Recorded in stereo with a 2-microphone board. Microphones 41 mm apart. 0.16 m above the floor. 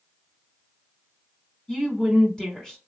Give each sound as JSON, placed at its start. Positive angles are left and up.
{"t": 1.7, "sound": "a woman speaking", "side_deg": 15, "distance_m": 1.1}